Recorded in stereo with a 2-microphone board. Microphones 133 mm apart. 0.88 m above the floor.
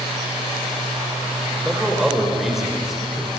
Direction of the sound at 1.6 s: 5° right (ahead or behind).